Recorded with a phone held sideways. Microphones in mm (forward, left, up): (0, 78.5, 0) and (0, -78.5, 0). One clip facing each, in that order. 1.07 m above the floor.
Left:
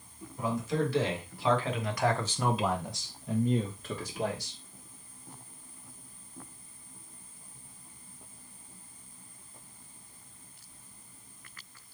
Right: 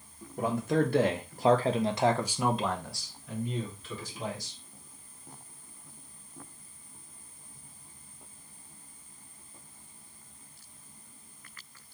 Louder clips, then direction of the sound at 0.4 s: Right 3 dB; 60° right (ahead or behind).